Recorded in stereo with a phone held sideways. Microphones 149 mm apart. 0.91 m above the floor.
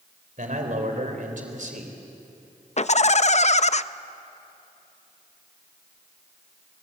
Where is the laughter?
50° left (ahead or behind), 0.6 m.